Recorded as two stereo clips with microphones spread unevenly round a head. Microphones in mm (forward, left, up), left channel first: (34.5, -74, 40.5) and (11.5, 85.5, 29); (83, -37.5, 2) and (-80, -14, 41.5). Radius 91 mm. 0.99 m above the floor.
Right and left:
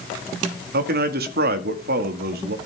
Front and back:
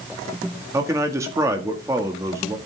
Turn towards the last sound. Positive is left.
turn(degrees=95)